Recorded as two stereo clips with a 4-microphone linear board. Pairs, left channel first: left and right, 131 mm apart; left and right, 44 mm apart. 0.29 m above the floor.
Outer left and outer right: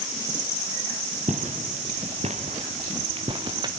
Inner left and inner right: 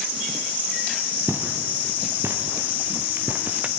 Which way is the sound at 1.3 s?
65° right (ahead or behind).